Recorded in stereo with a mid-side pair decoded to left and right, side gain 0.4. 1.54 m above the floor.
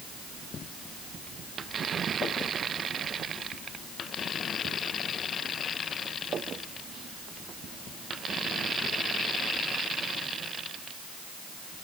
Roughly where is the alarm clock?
I don't hear an alarm clock.